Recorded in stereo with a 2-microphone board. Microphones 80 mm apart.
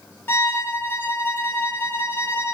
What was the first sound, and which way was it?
A violin, 25° left (ahead or behind).